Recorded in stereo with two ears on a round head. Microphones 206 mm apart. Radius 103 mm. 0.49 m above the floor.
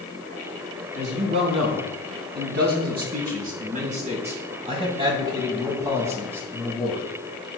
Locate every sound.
0.9 s a man speaking: 60° right (ahead or behind), 3.5 m; by 7.0 s 5° right (ahead or behind), 3.5 m